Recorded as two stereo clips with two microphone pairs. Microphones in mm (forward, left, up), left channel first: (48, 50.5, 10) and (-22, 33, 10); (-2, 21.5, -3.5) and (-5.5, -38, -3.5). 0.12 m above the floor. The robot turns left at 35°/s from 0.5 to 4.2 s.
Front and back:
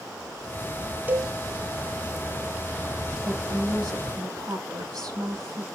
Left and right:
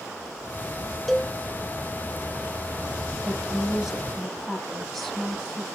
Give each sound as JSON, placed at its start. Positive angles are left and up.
{"t": 1.1, "sound": "a cowbell", "azimuth_deg": 175, "distance_m": 0.8}
{"t": 3.2, "sound": "a woman speaking", "azimuth_deg": -155, "distance_m": 6.0}